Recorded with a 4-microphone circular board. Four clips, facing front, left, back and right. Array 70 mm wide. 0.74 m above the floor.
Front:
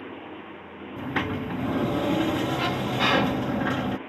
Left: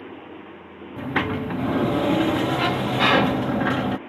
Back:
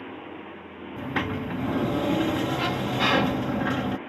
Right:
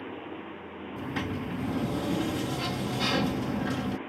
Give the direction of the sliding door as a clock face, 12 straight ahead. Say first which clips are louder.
Left 9 dB, even; 9 o'clock.